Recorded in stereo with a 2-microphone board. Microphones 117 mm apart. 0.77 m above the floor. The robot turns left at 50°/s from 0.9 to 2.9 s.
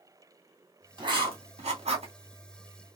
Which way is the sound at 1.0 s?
40° right (ahead or behind).